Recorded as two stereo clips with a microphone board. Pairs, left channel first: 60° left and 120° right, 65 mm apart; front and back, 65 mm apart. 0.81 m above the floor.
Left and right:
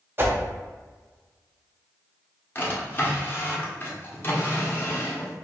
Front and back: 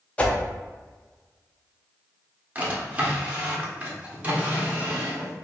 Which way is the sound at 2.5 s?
115° left.